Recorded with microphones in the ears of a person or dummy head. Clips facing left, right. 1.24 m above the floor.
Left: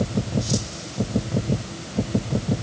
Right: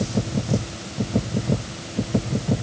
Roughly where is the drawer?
No drawer in this recording.